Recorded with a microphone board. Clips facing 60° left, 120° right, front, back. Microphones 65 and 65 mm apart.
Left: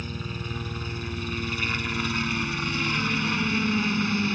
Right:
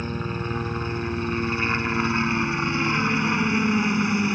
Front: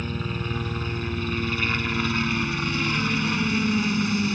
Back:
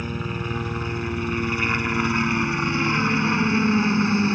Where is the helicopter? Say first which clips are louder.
Right 6 dB, back 1 dB; 110° right; by 4.3 s 175° right.